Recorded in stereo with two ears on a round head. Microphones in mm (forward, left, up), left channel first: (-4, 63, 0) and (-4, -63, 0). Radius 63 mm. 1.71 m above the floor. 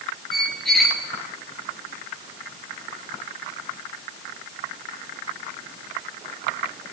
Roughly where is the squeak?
Centre.